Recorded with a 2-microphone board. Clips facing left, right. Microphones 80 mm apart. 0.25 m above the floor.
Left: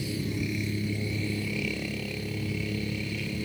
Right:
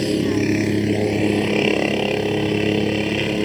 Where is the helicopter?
75° right (ahead or behind).